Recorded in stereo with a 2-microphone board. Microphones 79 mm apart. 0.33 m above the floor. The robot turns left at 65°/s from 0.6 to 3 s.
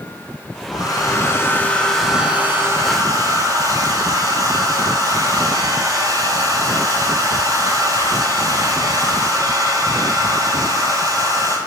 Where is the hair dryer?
85° left, 2.5 m; by 11.6 s 65° right, 2.5 m.